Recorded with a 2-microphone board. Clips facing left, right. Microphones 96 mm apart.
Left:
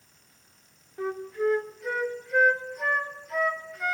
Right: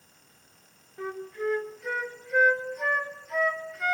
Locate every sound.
1.0 s a flute: 5° left (ahead or behind), 0.7 m